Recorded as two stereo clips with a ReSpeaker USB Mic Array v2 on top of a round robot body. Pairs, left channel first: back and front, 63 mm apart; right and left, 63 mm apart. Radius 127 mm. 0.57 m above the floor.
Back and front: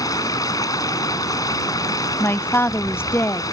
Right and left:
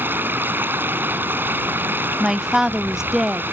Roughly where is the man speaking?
Behind.